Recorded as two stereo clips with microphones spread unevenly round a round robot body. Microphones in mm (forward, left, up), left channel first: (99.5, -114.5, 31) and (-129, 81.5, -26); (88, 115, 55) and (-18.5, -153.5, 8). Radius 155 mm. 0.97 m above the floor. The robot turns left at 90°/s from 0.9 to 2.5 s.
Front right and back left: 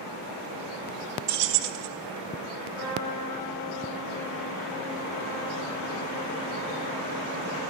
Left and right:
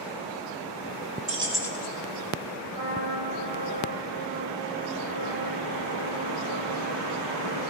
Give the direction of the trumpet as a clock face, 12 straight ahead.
4 o'clock.